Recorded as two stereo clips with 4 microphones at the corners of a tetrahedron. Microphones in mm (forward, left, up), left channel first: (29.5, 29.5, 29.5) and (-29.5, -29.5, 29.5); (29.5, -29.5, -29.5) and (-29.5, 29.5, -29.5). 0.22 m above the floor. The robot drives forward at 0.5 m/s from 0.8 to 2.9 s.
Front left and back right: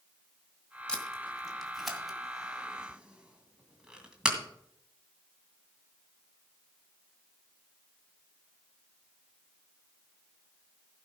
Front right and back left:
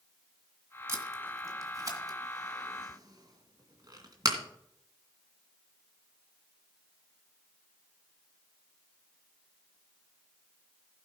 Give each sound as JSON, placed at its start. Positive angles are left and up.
{"t": 0.9, "sound": "tape being pulled", "azimuth_deg": 115, "distance_m": 1.9}